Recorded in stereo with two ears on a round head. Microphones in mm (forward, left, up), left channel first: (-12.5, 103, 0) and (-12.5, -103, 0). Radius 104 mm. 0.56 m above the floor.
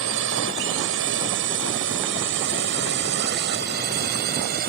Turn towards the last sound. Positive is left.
turn(degrees=-45)  # may be behind; listen again after turning